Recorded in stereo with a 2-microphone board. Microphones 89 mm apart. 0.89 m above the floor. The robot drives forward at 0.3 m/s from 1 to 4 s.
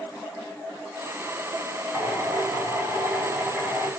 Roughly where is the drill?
Centre.